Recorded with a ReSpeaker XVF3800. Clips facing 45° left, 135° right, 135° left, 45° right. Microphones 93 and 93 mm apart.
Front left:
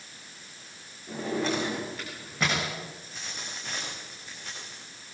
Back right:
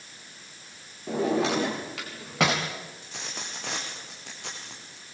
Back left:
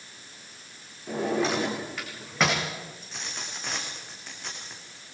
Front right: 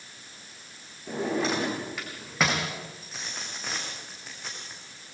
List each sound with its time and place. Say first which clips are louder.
1.1 s a drawer: back right 5 dB, back left 1 dB; 135° right, 8 m
3.0 s a dropped coin: back right 2 dB, even; 130° right, 7.5 m